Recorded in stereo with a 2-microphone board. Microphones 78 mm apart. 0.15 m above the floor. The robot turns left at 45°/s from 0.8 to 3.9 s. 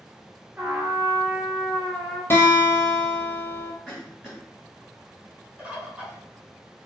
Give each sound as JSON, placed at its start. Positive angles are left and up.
{"t": 0.6, "sound": "a trumpet", "azimuth_deg": -145, "distance_m": 1.1}
{"t": 2.3, "sound": "a guitar", "azimuth_deg": 35, "distance_m": 0.8}
{"t": 3.9, "sound": "a cough", "side_deg": -5, "distance_m": 1.9}
{"t": 5.6, "sound": "a bird", "side_deg": -15, "distance_m": 1.0}